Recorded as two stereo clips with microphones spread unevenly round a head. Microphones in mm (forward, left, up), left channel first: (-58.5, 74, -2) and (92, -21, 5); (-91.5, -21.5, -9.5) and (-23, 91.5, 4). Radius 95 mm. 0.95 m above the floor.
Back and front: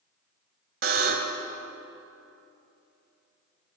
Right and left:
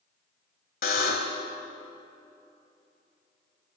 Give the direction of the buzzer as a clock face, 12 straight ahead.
3 o'clock.